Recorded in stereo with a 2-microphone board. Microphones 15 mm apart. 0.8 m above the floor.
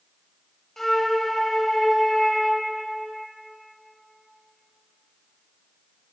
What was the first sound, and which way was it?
A flute, 15° left (ahead or behind).